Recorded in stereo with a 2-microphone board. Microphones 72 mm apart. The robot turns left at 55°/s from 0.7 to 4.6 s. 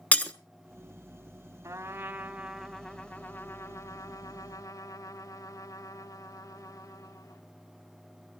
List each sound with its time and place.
0.1 s breaking glass: 20° left (ahead or behind), 0.9 m
1.6 s a trumpet: 125° right, 1.4 m; by 7.4 s 70° left, 1.4 m